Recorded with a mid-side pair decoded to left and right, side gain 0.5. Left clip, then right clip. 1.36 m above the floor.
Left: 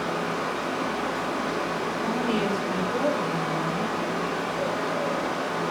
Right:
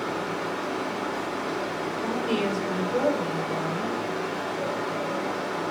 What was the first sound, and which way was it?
A fan, 30° left.